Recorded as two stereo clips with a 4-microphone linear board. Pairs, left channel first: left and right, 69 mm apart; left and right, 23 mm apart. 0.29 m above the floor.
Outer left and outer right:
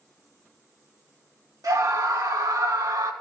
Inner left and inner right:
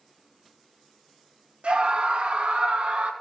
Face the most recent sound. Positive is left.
turn(degrees=-70)  # may be behind; listen again after turning